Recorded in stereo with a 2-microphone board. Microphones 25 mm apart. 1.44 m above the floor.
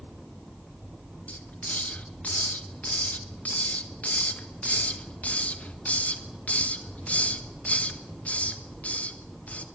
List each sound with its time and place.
1.3 s a hiss: 75° left (ahead or behind), 1.4 m